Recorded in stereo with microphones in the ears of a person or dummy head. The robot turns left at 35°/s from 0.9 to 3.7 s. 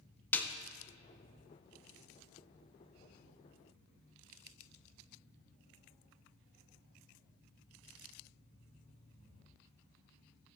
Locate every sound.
0.3 s a snare drum: 5° left (ahead or behind), 0.6 m